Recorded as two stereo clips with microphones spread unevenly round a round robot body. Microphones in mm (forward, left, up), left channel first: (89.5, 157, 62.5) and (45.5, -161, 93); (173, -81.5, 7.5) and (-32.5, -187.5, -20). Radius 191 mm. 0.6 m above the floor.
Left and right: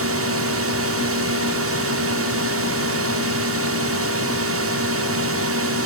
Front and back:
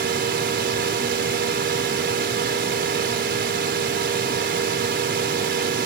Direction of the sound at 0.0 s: 135° right.